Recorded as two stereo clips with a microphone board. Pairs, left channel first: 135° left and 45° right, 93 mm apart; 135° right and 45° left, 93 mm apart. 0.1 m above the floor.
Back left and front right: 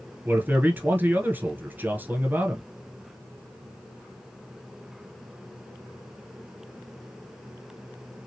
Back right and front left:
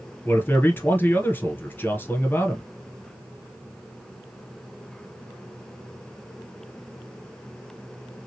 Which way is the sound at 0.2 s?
90° right.